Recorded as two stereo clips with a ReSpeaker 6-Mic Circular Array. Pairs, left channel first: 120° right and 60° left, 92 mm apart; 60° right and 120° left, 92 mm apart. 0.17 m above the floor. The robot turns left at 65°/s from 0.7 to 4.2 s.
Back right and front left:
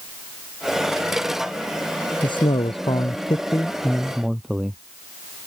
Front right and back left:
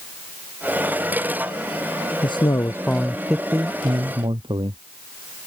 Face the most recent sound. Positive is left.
turn(degrees=145)